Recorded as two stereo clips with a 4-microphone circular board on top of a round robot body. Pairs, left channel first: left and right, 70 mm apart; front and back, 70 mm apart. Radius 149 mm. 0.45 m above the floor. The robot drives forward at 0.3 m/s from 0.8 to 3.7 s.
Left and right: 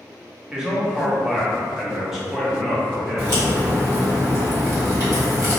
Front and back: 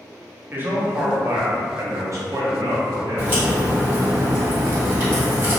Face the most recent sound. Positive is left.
turn(degrees=-130)